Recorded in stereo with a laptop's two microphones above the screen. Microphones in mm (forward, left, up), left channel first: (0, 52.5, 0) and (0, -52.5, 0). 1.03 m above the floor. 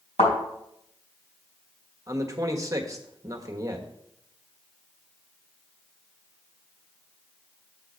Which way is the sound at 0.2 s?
85° left.